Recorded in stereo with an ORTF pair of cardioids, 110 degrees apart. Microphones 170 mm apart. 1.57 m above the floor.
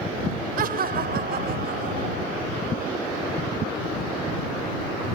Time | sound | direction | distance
0.6 | laughter | 60° right | ?